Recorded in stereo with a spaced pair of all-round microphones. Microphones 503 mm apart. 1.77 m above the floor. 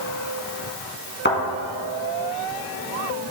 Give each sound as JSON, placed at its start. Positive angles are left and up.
{"t": 1.2, "sound": "a thud", "side_deg": 20, "distance_m": 3.0}